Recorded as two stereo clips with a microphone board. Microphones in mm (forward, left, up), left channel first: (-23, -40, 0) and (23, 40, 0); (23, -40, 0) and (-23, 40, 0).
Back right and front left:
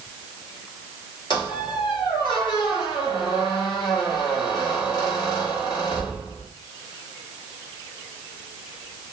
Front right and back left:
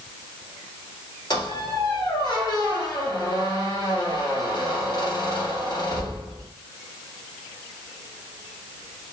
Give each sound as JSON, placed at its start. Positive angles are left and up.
{"t": 1.3, "sound": "a squeak", "azimuth_deg": -95, "distance_m": 2.0}